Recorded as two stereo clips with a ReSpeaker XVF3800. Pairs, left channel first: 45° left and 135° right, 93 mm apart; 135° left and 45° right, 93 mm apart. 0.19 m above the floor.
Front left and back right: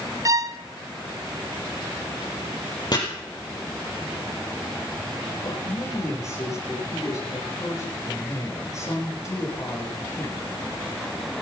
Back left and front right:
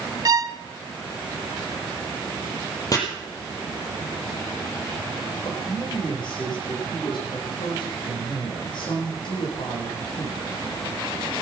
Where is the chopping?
85° left, 5.5 m.